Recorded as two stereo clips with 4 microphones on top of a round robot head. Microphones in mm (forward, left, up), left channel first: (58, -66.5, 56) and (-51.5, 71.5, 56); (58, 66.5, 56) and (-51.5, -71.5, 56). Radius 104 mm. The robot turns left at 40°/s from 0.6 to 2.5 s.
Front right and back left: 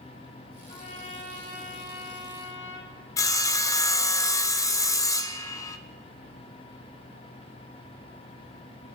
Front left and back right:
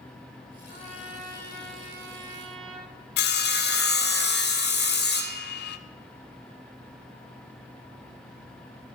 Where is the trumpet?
5° left, 3.5 m; by 2.9 s 70° right, 3.5 m.